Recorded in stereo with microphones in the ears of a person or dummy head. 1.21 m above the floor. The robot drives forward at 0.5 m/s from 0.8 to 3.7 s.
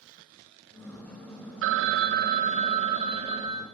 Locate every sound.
1.6 s a phone ringing: 70° right (ahead or behind), 0.6 m; by 3.6 s 25° right (ahead or behind), 1.3 m